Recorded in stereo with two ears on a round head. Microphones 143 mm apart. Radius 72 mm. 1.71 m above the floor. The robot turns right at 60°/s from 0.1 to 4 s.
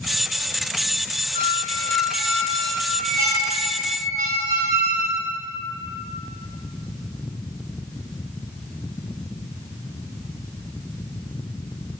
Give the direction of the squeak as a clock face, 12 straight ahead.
7 o'clock.